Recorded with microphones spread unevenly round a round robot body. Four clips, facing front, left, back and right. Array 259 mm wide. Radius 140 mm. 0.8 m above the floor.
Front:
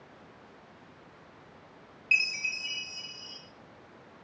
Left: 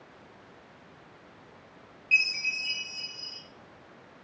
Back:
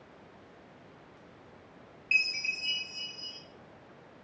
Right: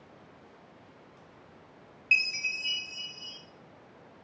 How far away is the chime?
About 0.8 m.